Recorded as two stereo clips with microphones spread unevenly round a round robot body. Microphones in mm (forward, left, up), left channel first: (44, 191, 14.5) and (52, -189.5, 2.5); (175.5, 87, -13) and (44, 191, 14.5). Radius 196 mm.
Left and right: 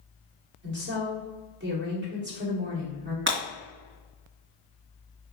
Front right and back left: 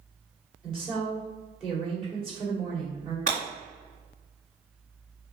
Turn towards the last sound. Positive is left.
turn(degrees=-150)